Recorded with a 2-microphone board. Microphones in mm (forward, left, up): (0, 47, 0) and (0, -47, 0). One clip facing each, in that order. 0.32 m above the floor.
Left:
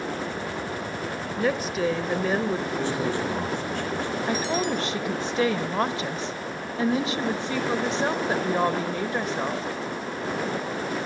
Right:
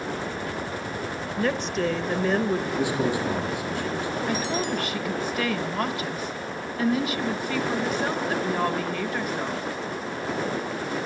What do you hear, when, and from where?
1.4 s a woman speaking: 5° left (ahead or behind), 0.9 m
2.8 s a man speaking: 10° right (ahead or behind), 9.5 m
4.3 s a woman speaking: 30° left (ahead or behind), 1.0 m